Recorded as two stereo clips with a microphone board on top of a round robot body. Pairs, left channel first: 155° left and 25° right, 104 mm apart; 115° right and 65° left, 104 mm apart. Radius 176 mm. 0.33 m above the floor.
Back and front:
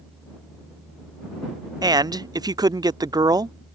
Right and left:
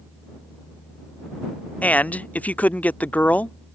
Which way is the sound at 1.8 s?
45° right.